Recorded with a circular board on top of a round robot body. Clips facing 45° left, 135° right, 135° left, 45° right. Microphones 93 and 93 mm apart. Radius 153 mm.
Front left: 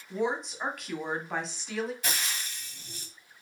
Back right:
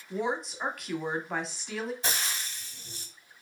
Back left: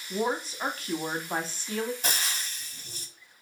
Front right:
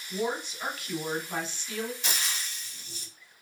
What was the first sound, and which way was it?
A woman speaking, 135° left.